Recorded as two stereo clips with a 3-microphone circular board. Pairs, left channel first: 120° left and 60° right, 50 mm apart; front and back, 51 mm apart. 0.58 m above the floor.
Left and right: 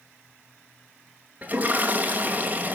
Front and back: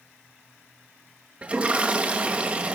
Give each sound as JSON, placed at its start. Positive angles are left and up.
{"t": 1.4, "sound": "a toilet flushing", "azimuth_deg": -120, "distance_m": 1.9}